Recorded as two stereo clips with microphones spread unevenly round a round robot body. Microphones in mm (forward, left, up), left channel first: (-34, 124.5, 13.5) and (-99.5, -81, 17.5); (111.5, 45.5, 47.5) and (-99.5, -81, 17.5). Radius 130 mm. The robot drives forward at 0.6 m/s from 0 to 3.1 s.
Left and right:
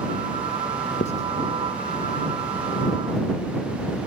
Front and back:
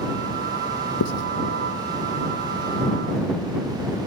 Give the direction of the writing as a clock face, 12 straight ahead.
12 o'clock.